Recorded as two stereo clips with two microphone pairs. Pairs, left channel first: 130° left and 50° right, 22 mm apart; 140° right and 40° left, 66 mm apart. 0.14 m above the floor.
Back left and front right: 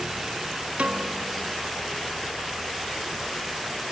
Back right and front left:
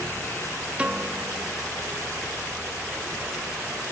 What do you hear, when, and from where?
0.8 s a piano: 30° right